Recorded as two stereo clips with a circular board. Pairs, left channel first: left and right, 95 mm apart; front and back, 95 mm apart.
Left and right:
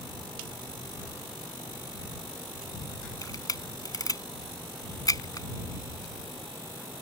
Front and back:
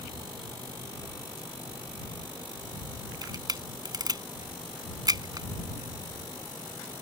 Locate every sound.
3.2 s a camera shutter: 135° left